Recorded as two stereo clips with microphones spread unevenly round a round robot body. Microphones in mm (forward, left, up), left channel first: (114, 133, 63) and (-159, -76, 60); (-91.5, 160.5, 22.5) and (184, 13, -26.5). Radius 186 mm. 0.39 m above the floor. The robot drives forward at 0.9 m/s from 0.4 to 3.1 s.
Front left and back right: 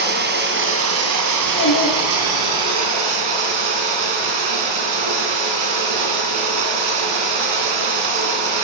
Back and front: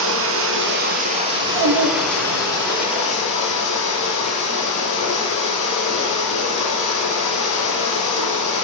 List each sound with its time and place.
0.0 s running water: 80° right, 2.5 m; by 8.6 s 135° right, 3 m
1.3 s a child speaking: 15° right, 6.5 m